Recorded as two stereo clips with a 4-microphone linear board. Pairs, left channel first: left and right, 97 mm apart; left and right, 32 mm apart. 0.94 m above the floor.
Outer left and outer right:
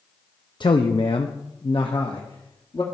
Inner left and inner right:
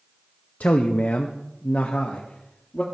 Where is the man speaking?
50° left (ahead or behind), 0.6 m.